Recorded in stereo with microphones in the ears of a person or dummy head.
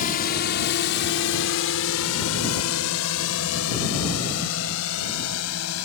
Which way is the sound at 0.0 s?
45° left (ahead or behind).